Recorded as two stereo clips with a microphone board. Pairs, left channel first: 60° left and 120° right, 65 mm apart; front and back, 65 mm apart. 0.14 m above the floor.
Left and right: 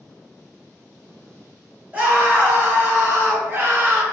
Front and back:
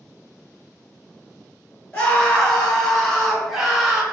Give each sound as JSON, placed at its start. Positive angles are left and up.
{"t": 1.9, "sound": "a scream", "azimuth_deg": -70, "distance_m": 2.0}